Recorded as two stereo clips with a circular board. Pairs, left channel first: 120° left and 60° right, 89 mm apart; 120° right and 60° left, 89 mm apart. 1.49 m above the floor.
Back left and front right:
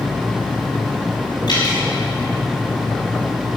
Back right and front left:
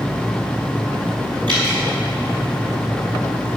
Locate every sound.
1.5 s dripping: 85° left, 5 m